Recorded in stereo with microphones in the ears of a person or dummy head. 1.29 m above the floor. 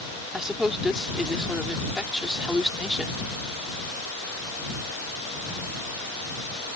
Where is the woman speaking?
Centre (ahead or behind).